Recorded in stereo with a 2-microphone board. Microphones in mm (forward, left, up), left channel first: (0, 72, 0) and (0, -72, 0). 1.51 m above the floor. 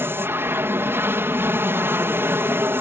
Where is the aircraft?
15° right (ahead or behind).